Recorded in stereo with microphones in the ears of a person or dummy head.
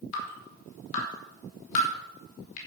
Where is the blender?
No blender in this recording.